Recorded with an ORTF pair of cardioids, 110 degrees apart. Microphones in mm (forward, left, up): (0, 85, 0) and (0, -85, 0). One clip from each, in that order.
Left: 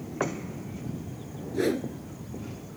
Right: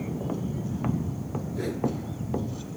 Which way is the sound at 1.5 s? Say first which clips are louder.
Left 3 dB; 40° left.